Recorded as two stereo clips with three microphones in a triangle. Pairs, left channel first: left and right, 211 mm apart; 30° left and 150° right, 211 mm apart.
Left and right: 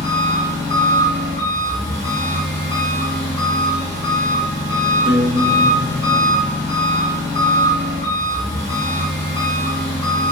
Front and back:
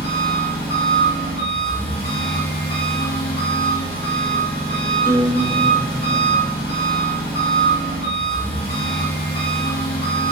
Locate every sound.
0.0 s an engine running: 35° right, 2.0 m
5.0 s a guitar: 85° right, 1.5 m